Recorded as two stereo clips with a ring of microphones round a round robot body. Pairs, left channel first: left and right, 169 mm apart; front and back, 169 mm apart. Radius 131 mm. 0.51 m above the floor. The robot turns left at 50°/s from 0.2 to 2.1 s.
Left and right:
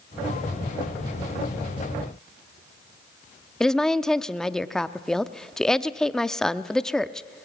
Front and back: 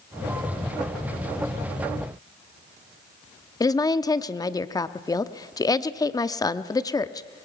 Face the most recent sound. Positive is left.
turn(degrees=10)